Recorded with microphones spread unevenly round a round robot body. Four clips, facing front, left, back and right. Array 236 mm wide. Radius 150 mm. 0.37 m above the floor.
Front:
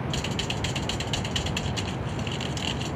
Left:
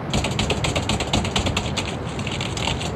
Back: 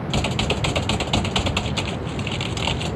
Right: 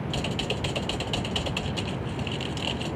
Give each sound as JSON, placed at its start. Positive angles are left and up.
{"t": 0.1, "sound": "typing on a keyboard", "azimuth_deg": 120}